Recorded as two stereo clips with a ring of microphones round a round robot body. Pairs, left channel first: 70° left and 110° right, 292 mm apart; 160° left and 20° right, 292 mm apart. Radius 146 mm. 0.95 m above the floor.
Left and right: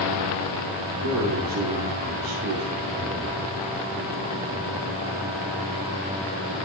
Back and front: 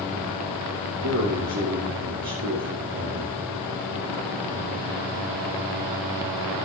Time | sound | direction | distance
1.0 | a man speaking | 70° right | 2.5 m